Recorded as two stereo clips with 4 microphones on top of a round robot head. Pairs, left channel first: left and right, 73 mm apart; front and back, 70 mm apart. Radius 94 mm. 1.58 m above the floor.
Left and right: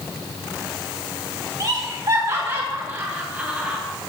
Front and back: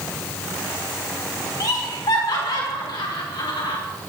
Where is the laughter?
40° right, 3.5 m; by 3.8 s 10° right, 4 m.